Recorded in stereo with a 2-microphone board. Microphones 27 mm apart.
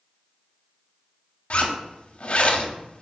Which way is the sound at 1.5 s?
55° left (ahead or behind).